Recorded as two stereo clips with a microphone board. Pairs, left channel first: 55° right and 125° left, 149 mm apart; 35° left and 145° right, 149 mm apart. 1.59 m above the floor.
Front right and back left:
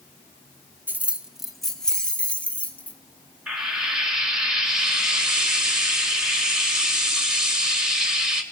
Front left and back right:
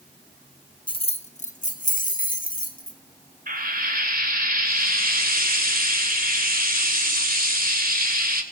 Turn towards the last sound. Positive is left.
turn(degrees=-150)